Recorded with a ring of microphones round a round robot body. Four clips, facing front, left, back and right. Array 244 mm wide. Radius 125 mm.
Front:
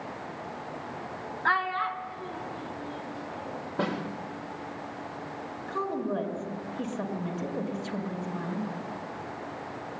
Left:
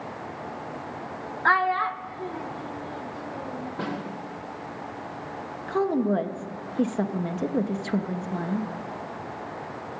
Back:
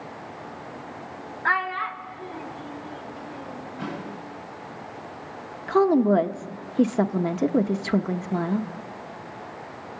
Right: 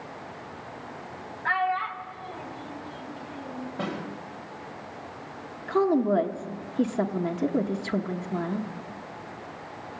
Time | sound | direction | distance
1.4 | a child speaking | 95° left | 0.8 m
3.8 | a snare drum | 10° left | 4 m
5.7 | a woman speaking | straight behind | 1.2 m